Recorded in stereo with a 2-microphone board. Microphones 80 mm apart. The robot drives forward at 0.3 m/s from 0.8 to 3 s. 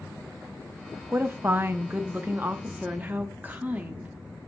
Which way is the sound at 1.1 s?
25° right (ahead or behind).